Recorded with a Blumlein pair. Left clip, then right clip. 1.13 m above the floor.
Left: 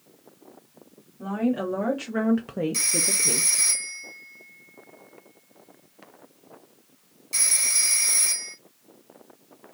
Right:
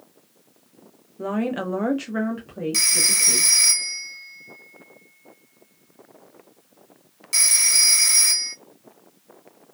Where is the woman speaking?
40° right, 0.8 m; by 3.5 s 65° left, 0.8 m.